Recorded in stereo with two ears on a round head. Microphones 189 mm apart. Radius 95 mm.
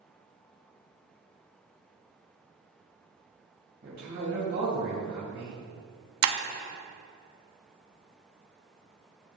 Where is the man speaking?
50° right (ahead or behind), 2.5 m.